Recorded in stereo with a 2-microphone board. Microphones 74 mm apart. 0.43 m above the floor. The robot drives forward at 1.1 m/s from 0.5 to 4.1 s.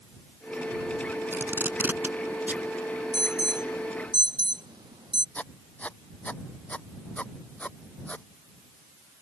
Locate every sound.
1.3 s tape being pulled: 30° right (ahead or behind); by 2.7 s 20° right (ahead or behind)
3.1 s an alarm: 65° right (ahead or behind); by 5.2 s 70° right (ahead or behind)
5.3 s writing: 20° left (ahead or behind)